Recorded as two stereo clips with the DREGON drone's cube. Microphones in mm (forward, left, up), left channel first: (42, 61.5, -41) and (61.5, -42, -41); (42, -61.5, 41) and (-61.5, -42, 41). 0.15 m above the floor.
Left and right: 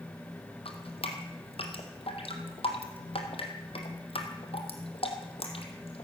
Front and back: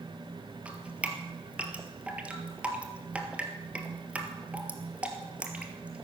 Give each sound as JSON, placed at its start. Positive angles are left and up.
{"t": 0.7, "sound": "dripping", "azimuth_deg": 95, "distance_m": 1.7}